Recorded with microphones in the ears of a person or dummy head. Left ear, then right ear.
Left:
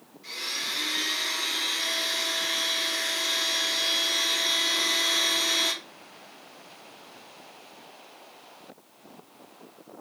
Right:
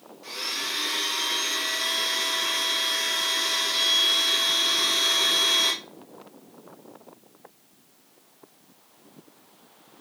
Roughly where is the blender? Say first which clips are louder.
Right 1 dB; right.